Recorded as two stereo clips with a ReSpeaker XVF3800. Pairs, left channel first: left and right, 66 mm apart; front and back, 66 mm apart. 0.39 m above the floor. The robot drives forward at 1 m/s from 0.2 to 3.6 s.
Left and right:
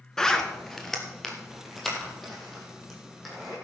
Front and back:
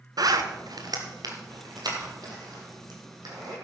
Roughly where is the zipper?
Behind.